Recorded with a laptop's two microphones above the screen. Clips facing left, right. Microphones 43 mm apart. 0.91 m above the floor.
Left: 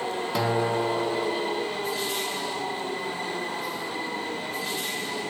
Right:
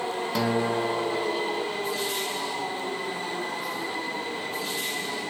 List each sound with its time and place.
0.3 s a guitar: 5° left (ahead or behind), 1.2 m